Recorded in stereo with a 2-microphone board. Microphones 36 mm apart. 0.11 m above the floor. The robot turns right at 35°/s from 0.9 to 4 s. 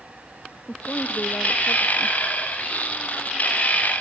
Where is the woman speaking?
50° left; by 2.2 s 95° left.